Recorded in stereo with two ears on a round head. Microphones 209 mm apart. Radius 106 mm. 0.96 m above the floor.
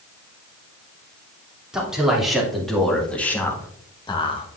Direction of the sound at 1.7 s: 5° right (ahead or behind).